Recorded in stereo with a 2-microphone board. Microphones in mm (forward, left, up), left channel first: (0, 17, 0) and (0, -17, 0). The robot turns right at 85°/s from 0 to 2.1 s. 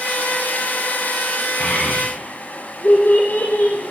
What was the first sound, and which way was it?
A child speaking, 40° left (ahead or behind).